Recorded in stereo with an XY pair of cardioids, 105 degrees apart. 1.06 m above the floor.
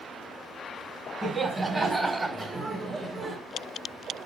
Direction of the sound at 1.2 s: 20° right.